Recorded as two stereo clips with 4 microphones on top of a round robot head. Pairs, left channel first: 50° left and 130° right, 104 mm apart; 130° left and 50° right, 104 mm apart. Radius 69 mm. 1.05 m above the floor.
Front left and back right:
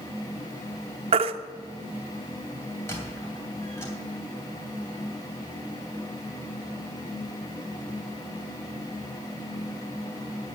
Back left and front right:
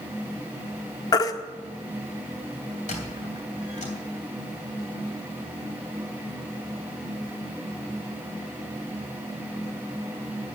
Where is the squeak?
115° left, 3 m.